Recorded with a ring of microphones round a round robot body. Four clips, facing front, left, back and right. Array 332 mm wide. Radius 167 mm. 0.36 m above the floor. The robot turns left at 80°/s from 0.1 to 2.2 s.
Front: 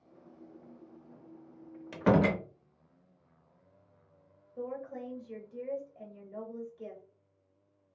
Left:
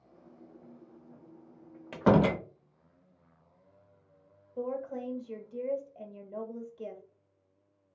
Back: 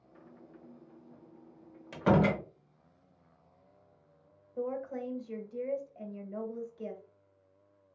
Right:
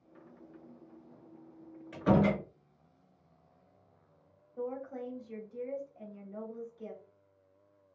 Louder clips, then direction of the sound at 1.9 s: Left 3 dB, even; 80° left.